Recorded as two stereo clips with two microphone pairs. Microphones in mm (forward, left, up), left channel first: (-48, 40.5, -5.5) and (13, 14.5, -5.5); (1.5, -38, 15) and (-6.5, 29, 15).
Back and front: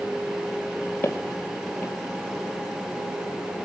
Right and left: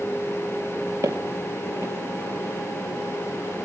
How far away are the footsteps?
About 2 m.